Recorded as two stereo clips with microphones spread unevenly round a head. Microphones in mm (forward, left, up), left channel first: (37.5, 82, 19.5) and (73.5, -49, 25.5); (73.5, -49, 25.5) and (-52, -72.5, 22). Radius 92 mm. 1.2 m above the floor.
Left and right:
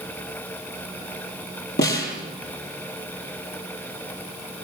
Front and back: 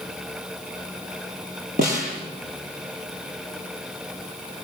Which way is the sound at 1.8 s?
140° left.